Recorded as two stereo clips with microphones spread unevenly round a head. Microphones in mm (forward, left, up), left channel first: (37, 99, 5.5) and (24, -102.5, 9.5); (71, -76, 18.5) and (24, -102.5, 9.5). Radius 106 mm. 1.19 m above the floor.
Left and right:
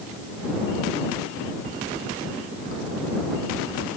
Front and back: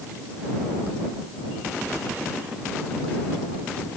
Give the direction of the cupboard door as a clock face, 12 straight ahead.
I don't hear a cupboard door.